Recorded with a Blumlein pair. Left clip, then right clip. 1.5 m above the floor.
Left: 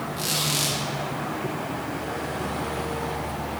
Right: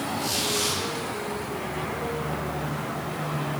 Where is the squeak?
55° left, 2.5 m.